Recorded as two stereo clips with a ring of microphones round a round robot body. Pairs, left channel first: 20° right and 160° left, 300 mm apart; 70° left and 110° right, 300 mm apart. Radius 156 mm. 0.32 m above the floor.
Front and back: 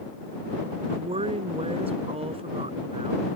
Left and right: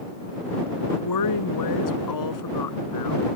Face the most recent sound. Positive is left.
turn(degrees=85)